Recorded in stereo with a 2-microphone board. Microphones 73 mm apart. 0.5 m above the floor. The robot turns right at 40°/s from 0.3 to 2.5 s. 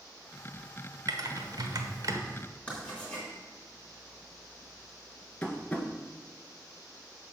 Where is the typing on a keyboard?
60° right (ahead or behind), 1.0 m; by 2.2 s 55° right (ahead or behind), 1.0 m.